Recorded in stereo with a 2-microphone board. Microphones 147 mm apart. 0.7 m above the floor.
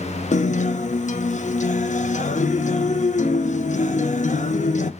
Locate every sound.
0.3 s a guitar: 55° left (ahead or behind), 0.5 m